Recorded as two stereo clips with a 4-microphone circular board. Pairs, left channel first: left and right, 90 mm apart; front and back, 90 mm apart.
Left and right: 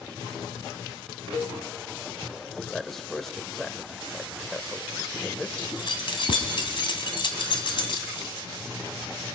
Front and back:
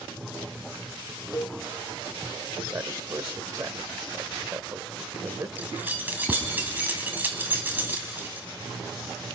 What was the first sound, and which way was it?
A cowbell, 45° left.